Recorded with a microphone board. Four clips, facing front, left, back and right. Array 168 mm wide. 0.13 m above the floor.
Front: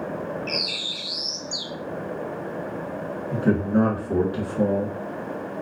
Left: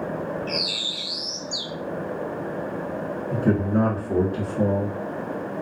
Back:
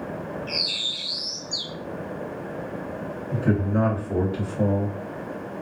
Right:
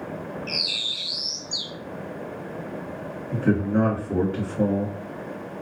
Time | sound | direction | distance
0.5 | a bird | 25° left | 0.5 m
3.3 | a man speaking | 25° right | 1.4 m